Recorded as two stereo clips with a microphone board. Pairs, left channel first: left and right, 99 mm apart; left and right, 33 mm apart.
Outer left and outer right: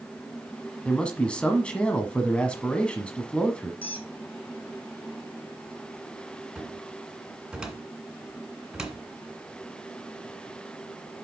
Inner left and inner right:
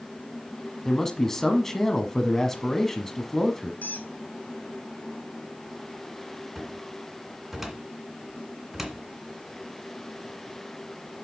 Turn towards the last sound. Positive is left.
turn(degrees=-5)  # may be behind; listen again after turning